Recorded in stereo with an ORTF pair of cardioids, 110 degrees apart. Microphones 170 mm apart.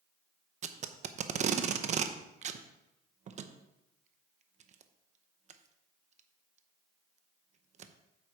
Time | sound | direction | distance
0.6 | tape being pulled | 45° right | 0.9 m